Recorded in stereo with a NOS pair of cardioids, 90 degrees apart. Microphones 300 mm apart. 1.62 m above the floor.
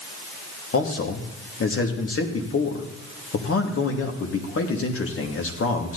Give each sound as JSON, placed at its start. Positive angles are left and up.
{"t": 0.7, "sound": "a man speaking", "azimuth_deg": 45, "distance_m": 3.0}